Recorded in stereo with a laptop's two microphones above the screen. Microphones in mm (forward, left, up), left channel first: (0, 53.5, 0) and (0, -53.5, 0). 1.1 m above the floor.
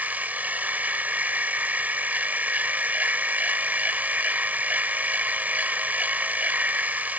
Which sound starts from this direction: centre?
A machine running, at 0.0 s.